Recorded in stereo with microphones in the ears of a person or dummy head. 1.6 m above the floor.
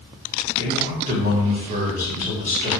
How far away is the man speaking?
About 1.2 m.